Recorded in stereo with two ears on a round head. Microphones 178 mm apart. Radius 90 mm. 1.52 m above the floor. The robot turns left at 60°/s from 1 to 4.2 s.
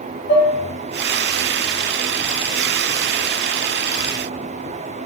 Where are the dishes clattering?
70° left (ahead or behind), 1.4 m.